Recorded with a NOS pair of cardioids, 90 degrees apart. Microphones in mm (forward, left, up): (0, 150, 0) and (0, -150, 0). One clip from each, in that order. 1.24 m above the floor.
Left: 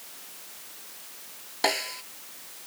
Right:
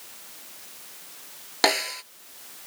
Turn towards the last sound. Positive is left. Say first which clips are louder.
# right 4 dB
turn(degrees=-70)